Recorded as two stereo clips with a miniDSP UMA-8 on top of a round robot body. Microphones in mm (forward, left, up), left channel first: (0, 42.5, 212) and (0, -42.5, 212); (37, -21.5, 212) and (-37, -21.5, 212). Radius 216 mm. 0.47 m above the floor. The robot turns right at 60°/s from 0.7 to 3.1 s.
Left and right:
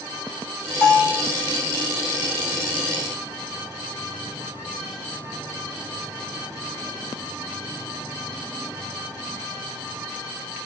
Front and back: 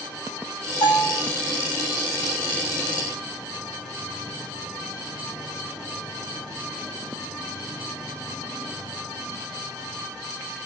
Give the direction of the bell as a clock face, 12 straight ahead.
11 o'clock.